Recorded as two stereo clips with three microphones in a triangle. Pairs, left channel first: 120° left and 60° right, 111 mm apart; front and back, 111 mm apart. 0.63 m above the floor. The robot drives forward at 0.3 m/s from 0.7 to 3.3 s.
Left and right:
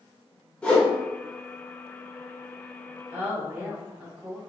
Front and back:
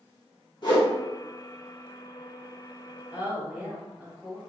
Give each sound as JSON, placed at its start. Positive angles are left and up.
{"t": 0.6, "sound": "a whoosh", "azimuth_deg": 40, "distance_m": 1.0}
{"t": 3.1, "sound": "a woman speaking", "azimuth_deg": -115, "distance_m": 1.1}